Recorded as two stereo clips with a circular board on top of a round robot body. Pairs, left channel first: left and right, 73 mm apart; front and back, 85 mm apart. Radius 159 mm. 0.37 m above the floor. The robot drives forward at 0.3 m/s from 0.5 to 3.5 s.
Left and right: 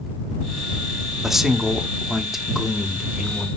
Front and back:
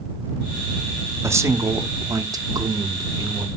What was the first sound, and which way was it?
A man speaking, 170° right.